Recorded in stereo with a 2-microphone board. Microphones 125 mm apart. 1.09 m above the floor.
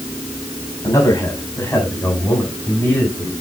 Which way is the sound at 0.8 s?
25° left (ahead or behind).